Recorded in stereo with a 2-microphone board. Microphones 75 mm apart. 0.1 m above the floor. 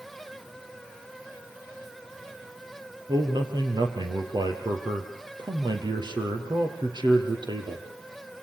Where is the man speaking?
65° right (ahead or behind), 4.5 m.